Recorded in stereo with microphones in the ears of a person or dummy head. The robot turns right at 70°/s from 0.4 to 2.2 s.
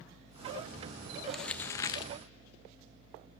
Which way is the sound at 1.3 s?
5° right.